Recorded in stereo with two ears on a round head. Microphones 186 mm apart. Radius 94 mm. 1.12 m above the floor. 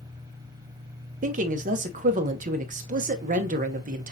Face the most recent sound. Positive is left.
turn(degrees=-40)  # may be behind; listen again after turning